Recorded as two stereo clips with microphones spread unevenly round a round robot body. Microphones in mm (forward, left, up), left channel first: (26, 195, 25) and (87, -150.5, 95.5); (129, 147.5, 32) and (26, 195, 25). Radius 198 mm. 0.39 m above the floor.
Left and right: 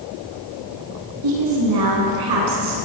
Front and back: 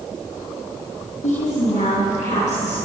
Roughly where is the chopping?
I don't hear chopping.